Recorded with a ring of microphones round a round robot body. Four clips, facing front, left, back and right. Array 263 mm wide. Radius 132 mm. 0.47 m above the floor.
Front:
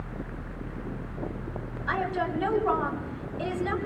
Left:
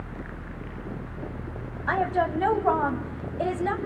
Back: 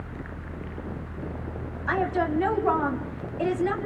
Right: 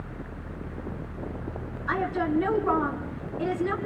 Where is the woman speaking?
100° left, 3 m.